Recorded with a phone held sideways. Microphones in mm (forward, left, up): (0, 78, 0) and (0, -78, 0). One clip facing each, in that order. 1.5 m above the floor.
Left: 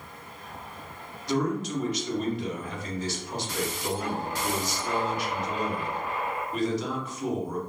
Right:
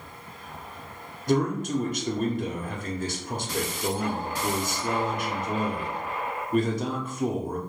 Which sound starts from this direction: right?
A man speaking, at 1.3 s.